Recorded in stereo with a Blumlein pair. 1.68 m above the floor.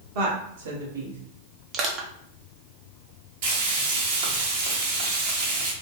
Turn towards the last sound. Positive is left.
turn(degrees=-50)